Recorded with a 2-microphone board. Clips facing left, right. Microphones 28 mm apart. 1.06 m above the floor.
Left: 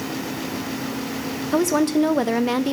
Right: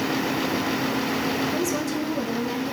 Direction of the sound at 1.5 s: 70° left (ahead or behind).